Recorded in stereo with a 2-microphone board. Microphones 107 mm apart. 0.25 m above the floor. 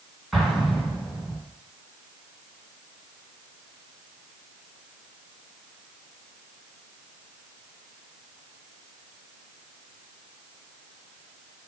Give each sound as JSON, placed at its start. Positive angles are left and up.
{"t": 0.3, "sound": "an explosion", "side_deg": 0, "distance_m": 2.5}